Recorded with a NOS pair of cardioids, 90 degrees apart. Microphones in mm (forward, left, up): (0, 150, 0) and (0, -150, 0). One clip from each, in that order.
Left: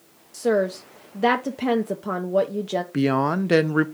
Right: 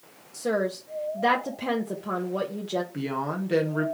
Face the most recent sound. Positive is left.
turn(degrees=50)